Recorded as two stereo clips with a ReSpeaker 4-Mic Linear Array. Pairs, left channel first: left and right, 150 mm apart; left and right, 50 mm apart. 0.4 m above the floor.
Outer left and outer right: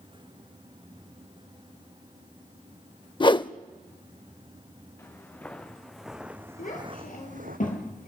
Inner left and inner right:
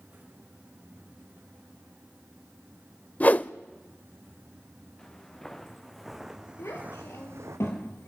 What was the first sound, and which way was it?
A whoosh, 30° left (ahead or behind).